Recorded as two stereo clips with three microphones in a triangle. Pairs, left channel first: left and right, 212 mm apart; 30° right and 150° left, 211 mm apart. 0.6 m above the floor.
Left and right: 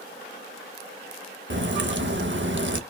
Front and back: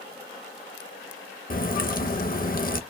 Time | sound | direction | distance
1.5 | a crack | 75° right | 0.5 m